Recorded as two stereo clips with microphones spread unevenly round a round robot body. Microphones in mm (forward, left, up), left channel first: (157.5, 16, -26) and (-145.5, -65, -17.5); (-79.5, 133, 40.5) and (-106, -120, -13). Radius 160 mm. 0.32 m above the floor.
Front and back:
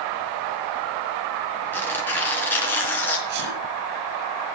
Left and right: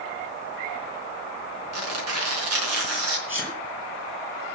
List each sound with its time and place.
1.7 s tearing paper: 70° right, 3.5 m
3.3 s a sneeze: 170° left, 3 m